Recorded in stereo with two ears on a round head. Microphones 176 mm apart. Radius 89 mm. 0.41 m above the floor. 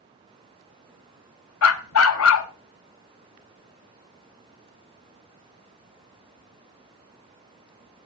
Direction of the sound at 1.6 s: 75° left (ahead or behind).